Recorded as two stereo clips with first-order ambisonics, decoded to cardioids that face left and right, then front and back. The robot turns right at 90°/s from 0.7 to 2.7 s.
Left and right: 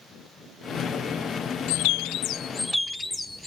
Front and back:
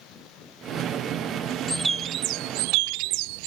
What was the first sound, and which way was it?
A bird, 85° left.